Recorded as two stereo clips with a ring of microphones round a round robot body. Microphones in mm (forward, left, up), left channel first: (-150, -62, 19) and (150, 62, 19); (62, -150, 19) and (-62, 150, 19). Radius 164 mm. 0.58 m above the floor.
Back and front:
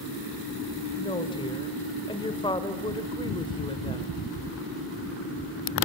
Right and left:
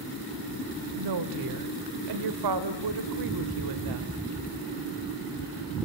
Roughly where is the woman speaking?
Behind left.